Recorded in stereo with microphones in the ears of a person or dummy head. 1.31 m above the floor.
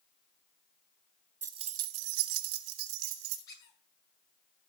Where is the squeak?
20° left (ahead or behind), 9.5 m.